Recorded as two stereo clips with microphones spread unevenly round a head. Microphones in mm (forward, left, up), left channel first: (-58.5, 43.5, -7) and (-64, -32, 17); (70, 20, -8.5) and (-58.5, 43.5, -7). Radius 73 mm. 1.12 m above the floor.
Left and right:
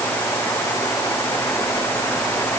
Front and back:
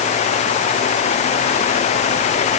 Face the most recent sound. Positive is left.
No sound to turn to.